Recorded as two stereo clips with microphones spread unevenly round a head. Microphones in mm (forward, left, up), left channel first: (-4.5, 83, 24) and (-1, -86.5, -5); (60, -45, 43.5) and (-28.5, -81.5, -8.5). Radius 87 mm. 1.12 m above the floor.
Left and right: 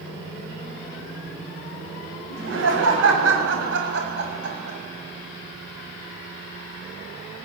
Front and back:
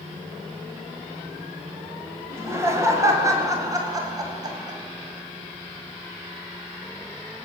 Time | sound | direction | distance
2.3 | laughter | 95° right | 8 m